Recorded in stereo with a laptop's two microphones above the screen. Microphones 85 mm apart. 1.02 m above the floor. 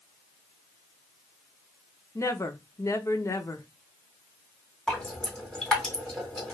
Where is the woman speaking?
35° left (ahead or behind), 0.7 m.